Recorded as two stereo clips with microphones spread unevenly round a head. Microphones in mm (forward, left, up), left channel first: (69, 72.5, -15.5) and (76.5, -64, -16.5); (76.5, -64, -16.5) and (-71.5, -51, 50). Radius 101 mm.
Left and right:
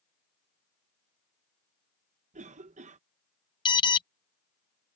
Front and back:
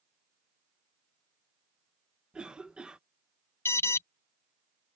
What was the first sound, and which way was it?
A cough, 80° right.